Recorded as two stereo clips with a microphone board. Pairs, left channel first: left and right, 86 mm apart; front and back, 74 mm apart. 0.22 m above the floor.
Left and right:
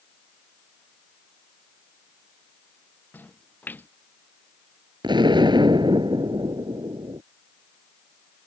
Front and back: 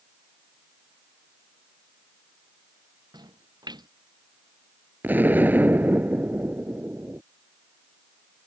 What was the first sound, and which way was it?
A splash, 160° left.